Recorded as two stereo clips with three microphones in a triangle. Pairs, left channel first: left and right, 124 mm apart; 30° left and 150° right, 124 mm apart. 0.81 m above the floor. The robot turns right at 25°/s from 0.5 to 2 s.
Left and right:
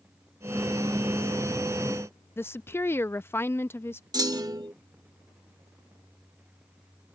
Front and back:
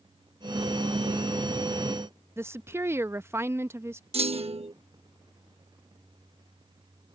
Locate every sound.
2.4 s a woman speaking: 155° left
4.1 s a clunk: 140° right